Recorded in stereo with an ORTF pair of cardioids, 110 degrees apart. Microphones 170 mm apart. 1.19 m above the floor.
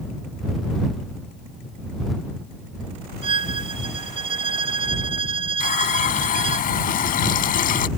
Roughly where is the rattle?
I don't hear a rattle.